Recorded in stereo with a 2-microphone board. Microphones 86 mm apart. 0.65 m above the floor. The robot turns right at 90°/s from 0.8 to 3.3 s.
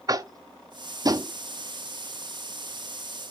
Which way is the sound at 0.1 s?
40° right (ahead or behind).